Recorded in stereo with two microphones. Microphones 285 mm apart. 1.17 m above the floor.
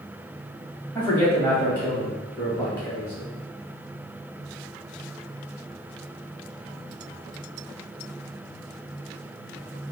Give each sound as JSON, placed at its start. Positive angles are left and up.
{"t": 0.9, "sound": "a man speaking", "side_deg": 10, "distance_m": 0.9}